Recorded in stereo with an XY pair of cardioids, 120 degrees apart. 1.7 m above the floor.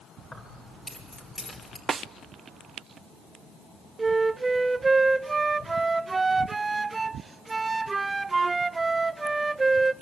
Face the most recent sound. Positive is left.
turn(degrees=-20)